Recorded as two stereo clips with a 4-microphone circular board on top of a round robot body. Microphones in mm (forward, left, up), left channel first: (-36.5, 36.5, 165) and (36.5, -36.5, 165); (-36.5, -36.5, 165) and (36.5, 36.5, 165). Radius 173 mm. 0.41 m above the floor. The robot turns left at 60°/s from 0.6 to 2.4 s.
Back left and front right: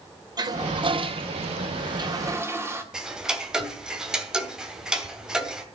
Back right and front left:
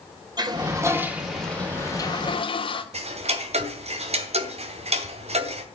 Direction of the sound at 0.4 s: Straight ahead.